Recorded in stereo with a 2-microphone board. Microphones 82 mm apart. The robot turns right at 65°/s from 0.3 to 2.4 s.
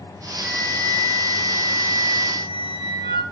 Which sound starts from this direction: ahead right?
A flute, at 0.4 s.